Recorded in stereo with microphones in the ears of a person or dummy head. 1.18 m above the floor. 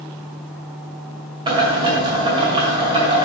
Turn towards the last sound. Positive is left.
turn(degrees=-20)  # may be behind; listen again after turning